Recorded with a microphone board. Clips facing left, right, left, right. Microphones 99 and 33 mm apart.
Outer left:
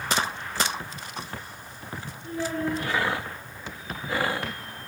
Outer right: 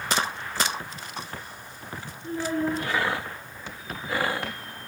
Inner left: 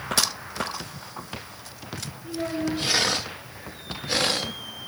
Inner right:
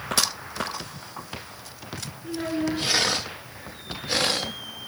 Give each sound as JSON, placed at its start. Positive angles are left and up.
{"t": 2.2, "sound": "a child speaking", "side_deg": -35, "distance_m": 2.5}